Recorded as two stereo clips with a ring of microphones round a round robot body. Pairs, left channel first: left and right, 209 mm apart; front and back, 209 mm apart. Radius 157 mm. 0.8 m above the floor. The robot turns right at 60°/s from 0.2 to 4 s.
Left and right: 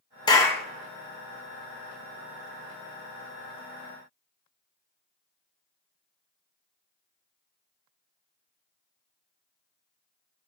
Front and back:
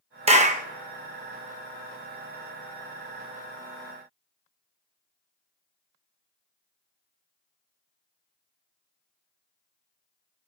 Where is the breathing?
No breathing in this recording.